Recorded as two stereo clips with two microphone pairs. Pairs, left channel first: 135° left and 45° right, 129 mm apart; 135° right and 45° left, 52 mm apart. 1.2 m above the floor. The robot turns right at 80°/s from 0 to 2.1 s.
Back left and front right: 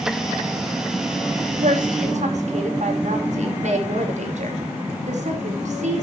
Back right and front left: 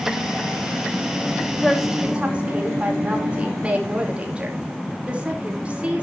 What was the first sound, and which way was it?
A woman speaking, 70° right.